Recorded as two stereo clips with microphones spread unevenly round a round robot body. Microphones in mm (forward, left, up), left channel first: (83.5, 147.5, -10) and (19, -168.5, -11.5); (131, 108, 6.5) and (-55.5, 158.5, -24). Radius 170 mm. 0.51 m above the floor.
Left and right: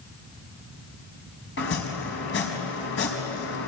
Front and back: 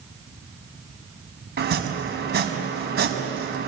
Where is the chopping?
135° left, 4.5 m.